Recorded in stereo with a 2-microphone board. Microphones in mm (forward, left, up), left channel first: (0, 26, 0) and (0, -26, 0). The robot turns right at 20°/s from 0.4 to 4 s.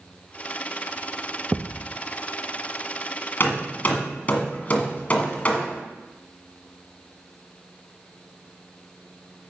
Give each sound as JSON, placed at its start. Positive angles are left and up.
{"t": 1.5, "sound": "a thud", "side_deg": -25, "distance_m": 1.2}
{"t": 3.4, "sound": "hammering", "side_deg": 40, "distance_m": 1.7}